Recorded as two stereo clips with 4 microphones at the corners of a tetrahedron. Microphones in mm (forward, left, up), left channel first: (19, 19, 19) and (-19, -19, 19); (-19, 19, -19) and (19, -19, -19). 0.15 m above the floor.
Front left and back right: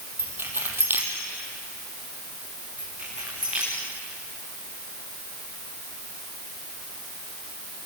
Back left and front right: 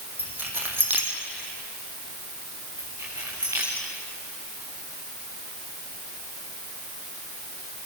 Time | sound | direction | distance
0.2 | keys jangling | 90° right | 4 m
2.8 | keys jangling | 70° right | 9 m